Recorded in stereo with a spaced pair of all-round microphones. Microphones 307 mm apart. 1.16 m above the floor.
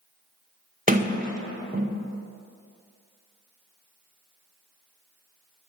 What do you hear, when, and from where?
0.9 s a sliding door: 25° right (ahead or behind), 0.6 m